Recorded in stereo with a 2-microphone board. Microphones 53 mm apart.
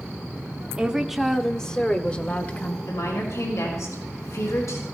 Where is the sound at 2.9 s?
80° left, 4.5 m.